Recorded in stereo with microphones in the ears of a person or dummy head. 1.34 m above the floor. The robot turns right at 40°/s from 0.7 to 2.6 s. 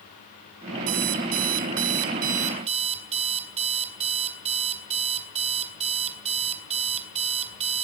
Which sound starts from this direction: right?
An alarm clock, at 0.9 s.